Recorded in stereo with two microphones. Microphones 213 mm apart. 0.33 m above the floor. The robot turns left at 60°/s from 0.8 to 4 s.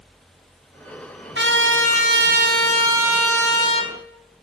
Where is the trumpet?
65° right, 1.9 m; by 3.9 s 140° left, 1.9 m.